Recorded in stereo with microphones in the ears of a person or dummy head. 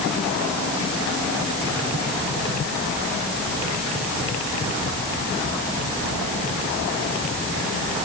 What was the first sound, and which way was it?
Only background noise.